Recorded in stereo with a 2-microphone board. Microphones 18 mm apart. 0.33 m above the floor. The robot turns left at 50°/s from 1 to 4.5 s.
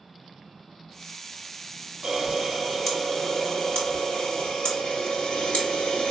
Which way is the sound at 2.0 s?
145° right.